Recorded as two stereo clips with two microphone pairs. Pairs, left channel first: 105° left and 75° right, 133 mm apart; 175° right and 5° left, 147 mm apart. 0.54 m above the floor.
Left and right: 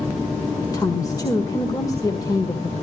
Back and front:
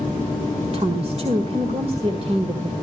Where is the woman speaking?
45° left, 1.6 m.